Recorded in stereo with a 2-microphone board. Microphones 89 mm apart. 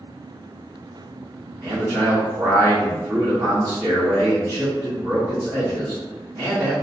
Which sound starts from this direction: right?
A man speaking, at 1.6 s.